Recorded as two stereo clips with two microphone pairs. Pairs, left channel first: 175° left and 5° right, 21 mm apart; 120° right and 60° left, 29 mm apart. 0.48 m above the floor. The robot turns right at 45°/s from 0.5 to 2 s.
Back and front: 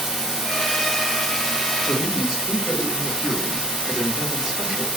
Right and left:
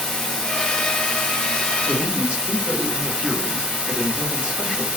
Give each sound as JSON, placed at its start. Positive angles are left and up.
{"t": 0.0, "sound": "running water", "azimuth_deg": -70, "distance_m": 1.3}
{"t": 1.9, "sound": "a man speaking", "azimuth_deg": -10, "distance_m": 1.1}